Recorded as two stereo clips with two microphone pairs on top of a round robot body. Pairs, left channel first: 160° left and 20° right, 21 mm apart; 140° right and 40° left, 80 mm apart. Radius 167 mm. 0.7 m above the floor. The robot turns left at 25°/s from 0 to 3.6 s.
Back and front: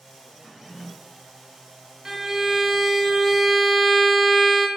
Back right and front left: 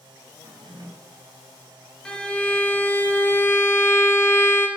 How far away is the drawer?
About 0.6 m.